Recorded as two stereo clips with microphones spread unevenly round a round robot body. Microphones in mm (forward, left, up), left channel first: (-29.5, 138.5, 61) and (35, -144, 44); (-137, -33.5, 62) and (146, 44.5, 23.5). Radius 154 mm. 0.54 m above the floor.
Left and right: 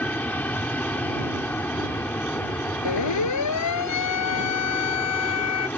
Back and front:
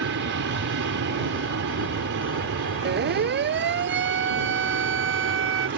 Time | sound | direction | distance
0.0 | an aircraft | 20° left | ?
2.9 | a siren | 75° left | ?